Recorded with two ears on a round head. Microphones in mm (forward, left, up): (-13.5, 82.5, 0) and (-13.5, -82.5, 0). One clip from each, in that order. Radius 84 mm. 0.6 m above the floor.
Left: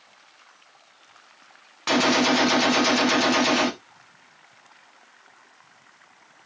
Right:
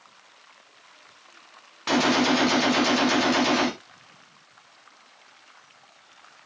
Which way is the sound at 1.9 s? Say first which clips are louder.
Left 2 dB; 15° left (ahead or behind).